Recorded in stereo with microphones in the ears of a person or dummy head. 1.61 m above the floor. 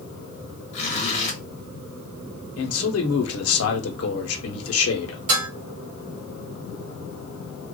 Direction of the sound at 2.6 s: 80° left.